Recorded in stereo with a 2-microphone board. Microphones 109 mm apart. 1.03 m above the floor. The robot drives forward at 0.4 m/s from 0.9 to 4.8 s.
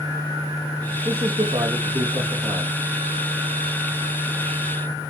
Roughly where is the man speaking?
Right.